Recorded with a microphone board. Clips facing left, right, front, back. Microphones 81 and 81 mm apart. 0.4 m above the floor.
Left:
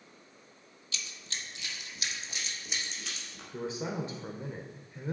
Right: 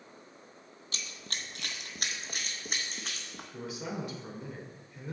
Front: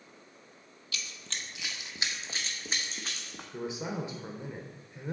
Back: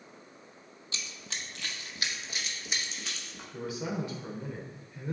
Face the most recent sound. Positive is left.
turn(degrees=55)